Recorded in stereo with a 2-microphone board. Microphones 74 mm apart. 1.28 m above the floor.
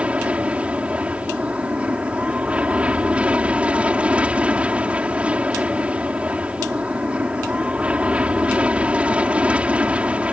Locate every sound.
0.0 s an aircraft: 15° right (ahead or behind)